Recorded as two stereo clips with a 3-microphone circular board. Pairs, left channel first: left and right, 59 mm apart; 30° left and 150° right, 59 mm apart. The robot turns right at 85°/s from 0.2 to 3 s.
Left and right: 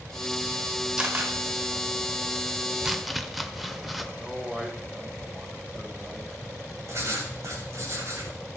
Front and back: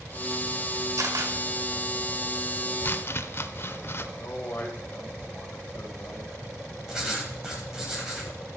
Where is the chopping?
15° right, 0.7 m; by 4.1 s straight ahead, 0.7 m.